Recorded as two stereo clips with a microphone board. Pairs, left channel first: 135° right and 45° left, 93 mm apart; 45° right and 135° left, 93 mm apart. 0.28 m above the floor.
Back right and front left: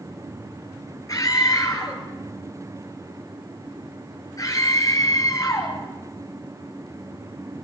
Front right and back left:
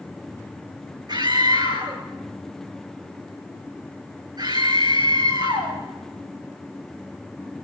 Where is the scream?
175° left, 5 m.